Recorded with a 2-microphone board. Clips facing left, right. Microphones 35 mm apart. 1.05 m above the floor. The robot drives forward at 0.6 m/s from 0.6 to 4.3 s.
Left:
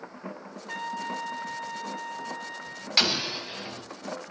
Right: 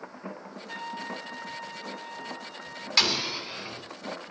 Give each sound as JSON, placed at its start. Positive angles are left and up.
{"t": 0.7, "sound": "a trumpet", "side_deg": 35, "distance_m": 0.9}
{"t": 3.0, "sound": "an explosion", "side_deg": 10, "distance_m": 1.3}